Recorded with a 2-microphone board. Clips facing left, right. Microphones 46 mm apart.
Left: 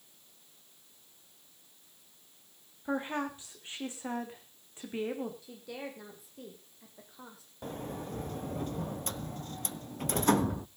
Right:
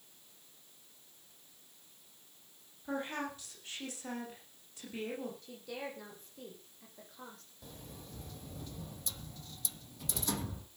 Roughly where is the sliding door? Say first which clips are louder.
Left 13 dB; left.